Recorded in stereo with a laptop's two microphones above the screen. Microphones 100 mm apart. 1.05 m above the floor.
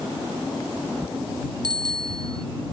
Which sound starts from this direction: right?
A bicycle bell, at 1.6 s.